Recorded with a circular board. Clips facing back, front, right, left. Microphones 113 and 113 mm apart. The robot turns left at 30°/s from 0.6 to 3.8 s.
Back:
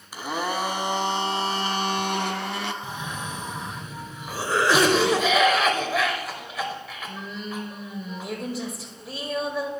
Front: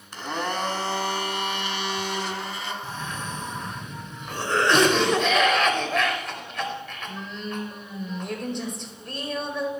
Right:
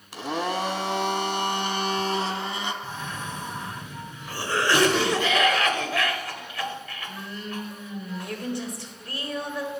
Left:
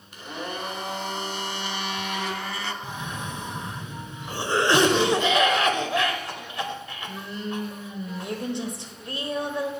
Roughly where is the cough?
Behind left.